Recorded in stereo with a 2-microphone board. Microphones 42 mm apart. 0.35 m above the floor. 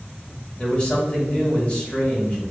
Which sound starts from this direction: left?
A man speaking, at 0.6 s.